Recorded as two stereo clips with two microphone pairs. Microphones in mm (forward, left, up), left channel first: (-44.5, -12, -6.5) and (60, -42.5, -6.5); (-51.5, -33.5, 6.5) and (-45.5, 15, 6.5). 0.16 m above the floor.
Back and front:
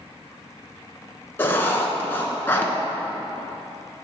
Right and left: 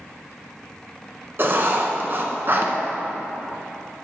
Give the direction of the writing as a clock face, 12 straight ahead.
9 o'clock.